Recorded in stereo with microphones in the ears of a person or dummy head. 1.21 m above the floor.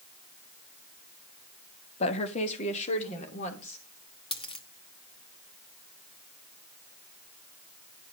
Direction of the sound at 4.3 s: 25° left (ahead or behind).